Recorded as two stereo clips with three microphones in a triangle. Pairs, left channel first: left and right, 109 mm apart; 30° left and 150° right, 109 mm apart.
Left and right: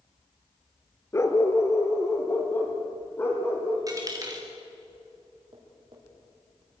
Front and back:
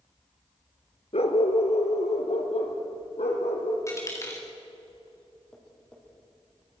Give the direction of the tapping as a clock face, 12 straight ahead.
2 o'clock.